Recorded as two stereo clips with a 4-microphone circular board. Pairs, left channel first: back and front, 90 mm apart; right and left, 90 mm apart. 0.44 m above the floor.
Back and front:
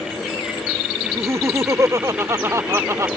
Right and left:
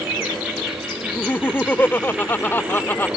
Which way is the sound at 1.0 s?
35° right.